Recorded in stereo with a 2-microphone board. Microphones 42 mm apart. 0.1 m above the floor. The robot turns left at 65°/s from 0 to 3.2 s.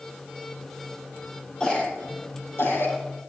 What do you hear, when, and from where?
1.6 s a cough: 15° left (ahead or behind), 4 m; by 3.0 s 65° left (ahead or behind), 4 m